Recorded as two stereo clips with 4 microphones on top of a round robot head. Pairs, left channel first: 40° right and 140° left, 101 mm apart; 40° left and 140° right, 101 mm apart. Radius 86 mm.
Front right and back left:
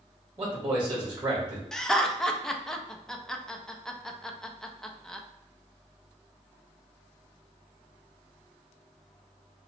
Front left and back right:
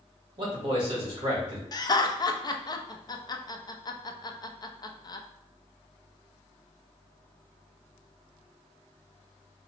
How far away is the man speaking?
About 1.7 m.